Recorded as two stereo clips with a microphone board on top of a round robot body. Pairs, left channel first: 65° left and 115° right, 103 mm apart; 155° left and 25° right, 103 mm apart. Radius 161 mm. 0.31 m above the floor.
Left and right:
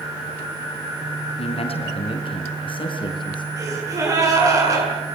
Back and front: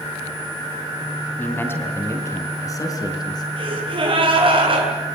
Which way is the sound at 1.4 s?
85° left.